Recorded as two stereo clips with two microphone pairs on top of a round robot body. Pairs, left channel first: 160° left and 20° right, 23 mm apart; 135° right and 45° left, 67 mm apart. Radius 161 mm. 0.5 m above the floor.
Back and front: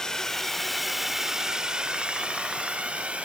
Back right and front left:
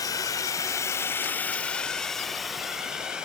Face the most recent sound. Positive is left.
turn(degrees=-35)